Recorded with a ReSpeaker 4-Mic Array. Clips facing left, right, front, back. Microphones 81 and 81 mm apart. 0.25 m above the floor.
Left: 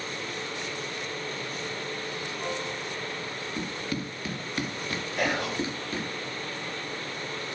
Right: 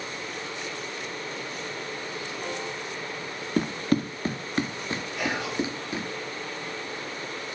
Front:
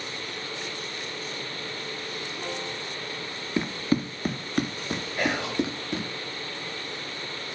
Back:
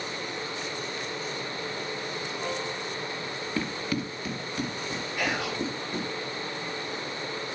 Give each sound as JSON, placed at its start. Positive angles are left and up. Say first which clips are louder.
{"t": 3.6, "sound": "running footsteps", "louder": "right 10 dB, front 6 dB", "azimuth_deg": -70, "distance_m": 0.9}
{"t": 5.2, "sound": "whispering", "louder": "left 2 dB, front 3 dB", "azimuth_deg": 55, "distance_m": 4.5}